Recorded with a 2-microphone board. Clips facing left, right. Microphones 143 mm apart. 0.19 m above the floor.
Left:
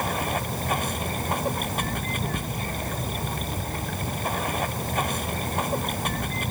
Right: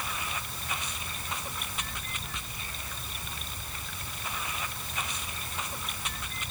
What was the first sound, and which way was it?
Running water, 55° left (ahead or behind).